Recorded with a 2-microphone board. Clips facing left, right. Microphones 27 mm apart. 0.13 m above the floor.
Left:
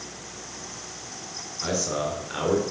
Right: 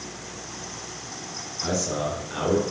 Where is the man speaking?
30° left (ahead or behind), 2.5 m.